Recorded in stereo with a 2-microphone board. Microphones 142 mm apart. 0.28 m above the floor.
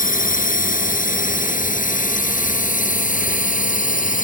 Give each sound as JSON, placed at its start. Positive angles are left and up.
{"t": 0.0, "sound": "a drone", "side_deg": 70}